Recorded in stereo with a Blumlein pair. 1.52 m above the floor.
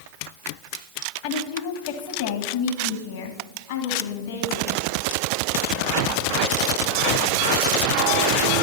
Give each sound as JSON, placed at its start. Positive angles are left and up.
{"t": 1.2, "sound": "a woman speaking", "azimuth_deg": 45, "distance_m": 1.7}